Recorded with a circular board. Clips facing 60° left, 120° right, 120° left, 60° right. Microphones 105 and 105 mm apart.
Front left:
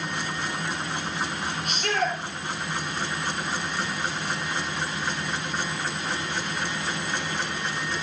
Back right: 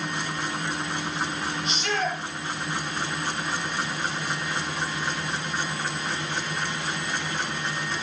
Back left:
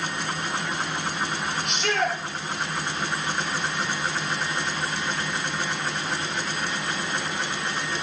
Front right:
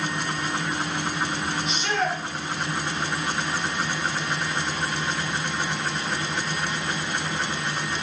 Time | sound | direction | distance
1.6 | a shout | 100° left | 4 m